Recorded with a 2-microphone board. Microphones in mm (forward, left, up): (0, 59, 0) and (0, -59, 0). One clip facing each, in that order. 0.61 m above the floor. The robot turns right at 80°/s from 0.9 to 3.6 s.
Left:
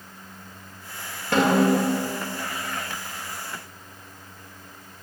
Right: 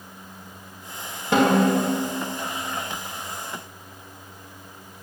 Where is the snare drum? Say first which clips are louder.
Right 1 dB; 20° right, 2.5 m; by 1.9 s 20° left, 2.5 m.